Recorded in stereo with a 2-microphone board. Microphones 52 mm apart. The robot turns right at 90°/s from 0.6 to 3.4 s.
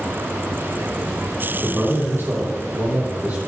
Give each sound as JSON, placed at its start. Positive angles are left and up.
{"t": 1.6, "sound": "a man speaking", "azimuth_deg": 175, "distance_m": 5.5}